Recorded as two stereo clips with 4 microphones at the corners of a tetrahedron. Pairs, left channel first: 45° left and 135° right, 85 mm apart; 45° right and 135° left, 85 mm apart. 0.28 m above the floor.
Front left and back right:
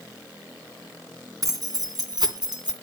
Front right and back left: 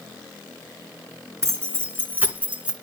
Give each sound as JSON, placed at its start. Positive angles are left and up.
{"t": 1.4, "sound": "keys jangling", "azimuth_deg": -175, "distance_m": 2.0}